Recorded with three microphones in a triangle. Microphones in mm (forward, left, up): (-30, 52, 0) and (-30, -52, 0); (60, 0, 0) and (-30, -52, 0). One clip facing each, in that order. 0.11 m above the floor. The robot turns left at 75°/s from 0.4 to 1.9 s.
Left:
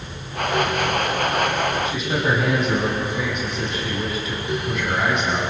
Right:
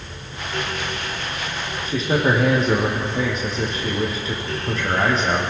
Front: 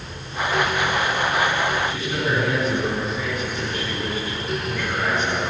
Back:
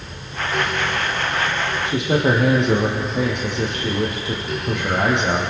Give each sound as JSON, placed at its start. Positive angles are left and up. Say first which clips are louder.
{"t": 1.9, "sound": "a man speaking", "louder": "right 2 dB, back 6 dB", "azimuth_deg": -140, "distance_m": 5.0}